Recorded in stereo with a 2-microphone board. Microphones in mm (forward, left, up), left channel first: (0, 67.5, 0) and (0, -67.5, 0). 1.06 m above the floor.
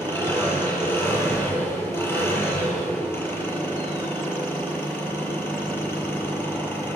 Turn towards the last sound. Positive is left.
turn(degrees=20)  # may be behind; listen again after turning